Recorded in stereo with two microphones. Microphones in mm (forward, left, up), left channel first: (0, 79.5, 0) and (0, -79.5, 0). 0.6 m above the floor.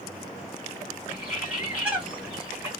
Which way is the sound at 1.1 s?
10° right (ahead or behind).